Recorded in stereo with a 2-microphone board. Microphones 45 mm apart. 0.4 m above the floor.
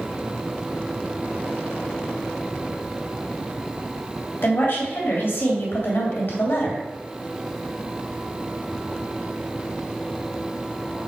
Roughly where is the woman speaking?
Left.